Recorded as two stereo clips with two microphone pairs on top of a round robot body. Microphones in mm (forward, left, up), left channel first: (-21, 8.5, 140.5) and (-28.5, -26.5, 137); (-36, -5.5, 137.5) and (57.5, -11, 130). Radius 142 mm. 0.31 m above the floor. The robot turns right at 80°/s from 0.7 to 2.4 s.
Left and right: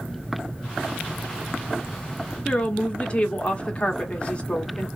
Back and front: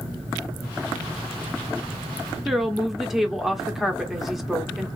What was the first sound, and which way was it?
A woman speaking, 70° left.